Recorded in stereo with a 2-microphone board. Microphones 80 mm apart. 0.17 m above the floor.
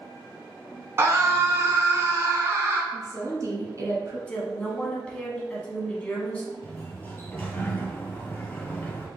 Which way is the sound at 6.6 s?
20° left (ahead or behind).